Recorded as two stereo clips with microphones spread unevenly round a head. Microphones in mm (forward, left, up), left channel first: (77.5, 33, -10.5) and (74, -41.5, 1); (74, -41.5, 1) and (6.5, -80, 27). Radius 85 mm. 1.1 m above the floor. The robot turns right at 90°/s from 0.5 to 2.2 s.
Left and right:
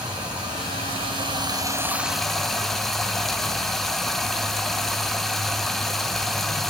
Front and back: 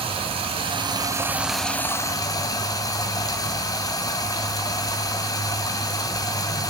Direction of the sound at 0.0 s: 150° right.